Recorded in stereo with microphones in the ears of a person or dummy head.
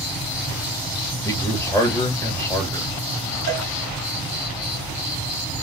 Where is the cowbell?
60° right (ahead or behind), 1.1 m.